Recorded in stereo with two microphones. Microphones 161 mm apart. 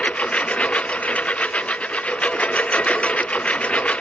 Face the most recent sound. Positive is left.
turn(degrees=10)  # may be behind; listen again after turning